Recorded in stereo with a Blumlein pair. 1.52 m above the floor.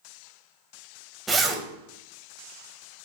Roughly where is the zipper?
Ahead.